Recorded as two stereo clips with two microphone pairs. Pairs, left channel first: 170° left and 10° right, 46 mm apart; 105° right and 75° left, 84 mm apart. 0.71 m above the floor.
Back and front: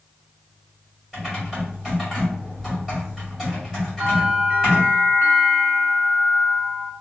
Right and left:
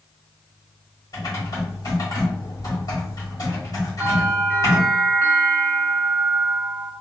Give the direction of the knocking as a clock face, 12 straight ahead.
No knocking in this recording.